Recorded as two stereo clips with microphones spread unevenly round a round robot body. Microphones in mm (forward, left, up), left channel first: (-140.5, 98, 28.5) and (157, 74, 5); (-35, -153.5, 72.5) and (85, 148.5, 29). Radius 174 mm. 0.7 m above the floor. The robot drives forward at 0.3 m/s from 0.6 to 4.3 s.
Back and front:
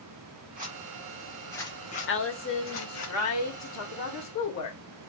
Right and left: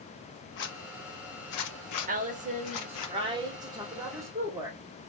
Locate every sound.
0.6 s a zipper: 70° right, 0.6 m; by 3.1 s 145° right, 0.8 m
2.1 s a woman speaking: 125° left, 1.3 m; by 4.8 s 145° left, 1.7 m